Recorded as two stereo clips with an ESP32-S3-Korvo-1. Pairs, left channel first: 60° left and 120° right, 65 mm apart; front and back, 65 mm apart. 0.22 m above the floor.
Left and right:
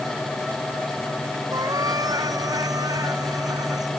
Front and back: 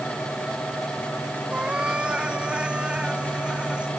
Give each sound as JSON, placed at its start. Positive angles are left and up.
{"t": 1.5, "sound": "a cat meowing", "azimuth_deg": -105}